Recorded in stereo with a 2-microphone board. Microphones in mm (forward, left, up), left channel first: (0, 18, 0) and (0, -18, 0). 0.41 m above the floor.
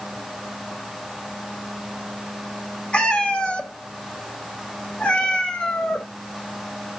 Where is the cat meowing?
30° left (ahead or behind), 1.0 m.